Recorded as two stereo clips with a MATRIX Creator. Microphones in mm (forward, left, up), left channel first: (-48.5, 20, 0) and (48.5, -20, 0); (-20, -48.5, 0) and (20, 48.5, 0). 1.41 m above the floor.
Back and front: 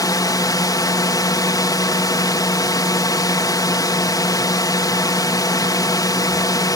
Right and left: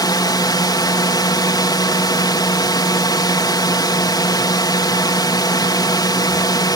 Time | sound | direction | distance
0.0 | a drone | 155° right | ?